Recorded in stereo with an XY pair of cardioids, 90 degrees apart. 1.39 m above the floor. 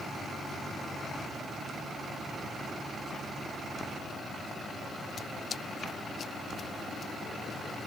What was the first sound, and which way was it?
Only background noise.